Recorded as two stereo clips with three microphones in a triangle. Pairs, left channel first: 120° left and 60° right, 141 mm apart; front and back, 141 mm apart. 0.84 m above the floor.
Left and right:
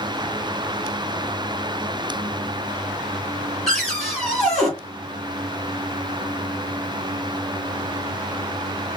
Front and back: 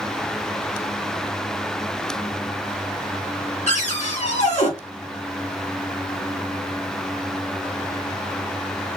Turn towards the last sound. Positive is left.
turn(degrees=30)